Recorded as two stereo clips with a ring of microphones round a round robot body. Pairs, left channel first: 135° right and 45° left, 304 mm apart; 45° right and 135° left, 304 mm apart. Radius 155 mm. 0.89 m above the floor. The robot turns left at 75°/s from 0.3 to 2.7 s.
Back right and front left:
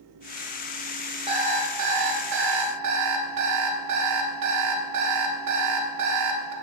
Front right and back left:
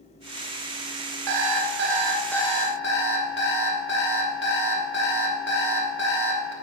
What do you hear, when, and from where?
1.3 s an alarm clock: 120° left, 1.3 m; by 6.5 s 10° left, 1.3 m